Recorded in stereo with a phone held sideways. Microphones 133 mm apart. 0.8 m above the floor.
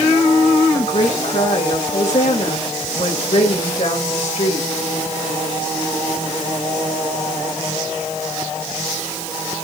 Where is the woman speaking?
60° left (ahead or behind), 3.5 m.